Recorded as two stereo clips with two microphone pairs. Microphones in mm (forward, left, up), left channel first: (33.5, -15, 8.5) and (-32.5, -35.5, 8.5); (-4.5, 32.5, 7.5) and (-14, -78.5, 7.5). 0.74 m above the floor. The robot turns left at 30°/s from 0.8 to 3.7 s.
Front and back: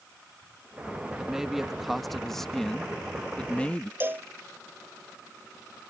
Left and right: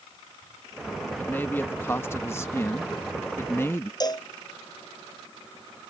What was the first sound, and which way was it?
A man speaking, 135° left.